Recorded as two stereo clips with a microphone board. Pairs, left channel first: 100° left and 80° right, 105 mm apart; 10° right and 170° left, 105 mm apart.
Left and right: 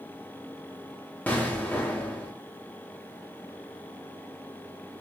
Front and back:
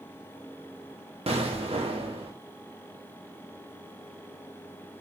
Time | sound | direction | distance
1.3 | an explosion | 170° left | 0.5 m